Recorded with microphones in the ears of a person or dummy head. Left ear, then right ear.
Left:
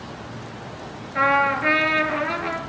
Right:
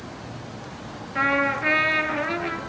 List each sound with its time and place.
1.1 s a trumpet: 5° right (ahead or behind), 3.5 m